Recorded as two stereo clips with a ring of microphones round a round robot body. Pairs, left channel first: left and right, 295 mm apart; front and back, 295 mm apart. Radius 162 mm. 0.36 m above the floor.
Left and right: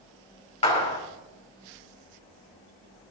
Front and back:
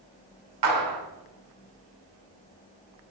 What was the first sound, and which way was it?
A clap, 160° left.